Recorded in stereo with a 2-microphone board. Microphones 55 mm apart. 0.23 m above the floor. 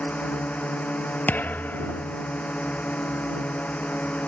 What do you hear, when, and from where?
0.0 s a drone: 30° left (ahead or behind)
1.3 s a thud: 30° left (ahead or behind)